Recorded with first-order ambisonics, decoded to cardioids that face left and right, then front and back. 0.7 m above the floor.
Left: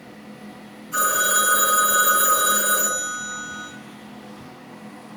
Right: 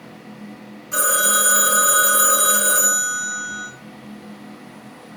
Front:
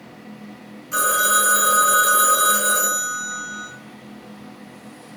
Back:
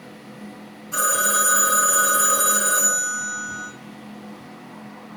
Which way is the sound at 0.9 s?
50° right.